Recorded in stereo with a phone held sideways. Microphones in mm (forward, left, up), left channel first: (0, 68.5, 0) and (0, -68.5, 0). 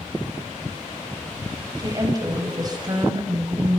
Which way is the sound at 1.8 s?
30° right (ahead or behind).